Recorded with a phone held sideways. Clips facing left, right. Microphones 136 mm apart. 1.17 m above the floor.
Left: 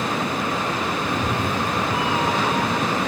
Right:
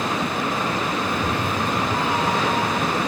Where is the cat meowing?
40° left (ahead or behind), 2 m; by 3.0 s 10° right (ahead or behind), 3.5 m.